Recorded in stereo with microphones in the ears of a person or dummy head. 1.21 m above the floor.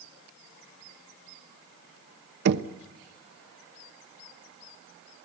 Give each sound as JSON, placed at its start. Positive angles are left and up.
{"t": 2.5, "sound": "knocking", "side_deg": -60, "distance_m": 0.9}